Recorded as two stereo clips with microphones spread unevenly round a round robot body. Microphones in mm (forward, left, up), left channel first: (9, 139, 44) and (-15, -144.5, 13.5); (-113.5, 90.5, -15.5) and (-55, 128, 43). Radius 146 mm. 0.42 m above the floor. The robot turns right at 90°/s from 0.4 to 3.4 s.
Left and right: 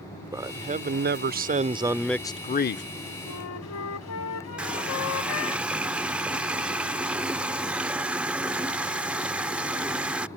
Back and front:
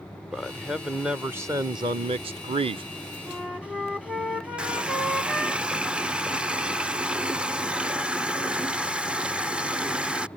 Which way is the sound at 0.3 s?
160° right.